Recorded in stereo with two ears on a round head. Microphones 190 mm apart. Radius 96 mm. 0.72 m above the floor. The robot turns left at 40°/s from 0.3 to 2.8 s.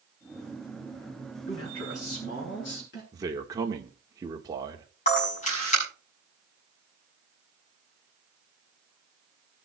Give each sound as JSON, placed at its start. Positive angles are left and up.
{"t": 1.5, "sound": "a man speaking", "azimuth_deg": 105, "distance_m": 8.0}
{"t": 3.1, "sound": "a man speaking", "side_deg": -20, "distance_m": 1.8}
{"t": 5.1, "sound": "a camera shutter", "side_deg": 35, "distance_m": 7.0}